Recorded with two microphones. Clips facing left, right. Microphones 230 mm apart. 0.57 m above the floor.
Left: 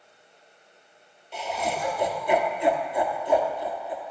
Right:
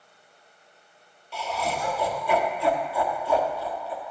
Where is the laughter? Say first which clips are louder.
Even; 20° left (ahead or behind), 1.1 m.